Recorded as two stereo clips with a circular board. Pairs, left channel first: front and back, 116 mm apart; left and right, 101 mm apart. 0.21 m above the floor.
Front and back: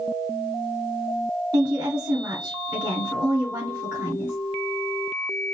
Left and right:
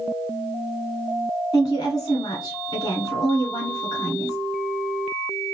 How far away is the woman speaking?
About 1.9 m.